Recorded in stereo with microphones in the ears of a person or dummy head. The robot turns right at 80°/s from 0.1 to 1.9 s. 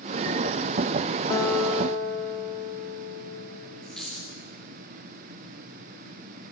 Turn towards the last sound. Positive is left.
turn(degrees=0)  # may be behind; listen again after turning